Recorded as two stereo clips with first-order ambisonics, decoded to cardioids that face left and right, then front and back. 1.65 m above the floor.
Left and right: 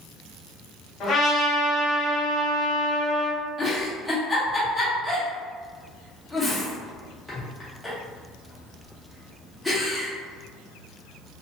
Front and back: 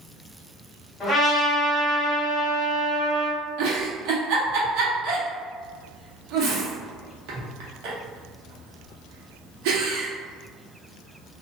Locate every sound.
1.0 s a trumpet: 65° left, 1.3 m
3.6 s a giggle: 175° left, 0.8 m